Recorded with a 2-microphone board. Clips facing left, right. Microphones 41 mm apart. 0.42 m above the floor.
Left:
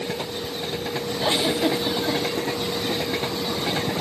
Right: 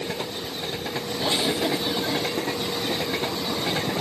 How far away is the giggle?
About 1.1 m.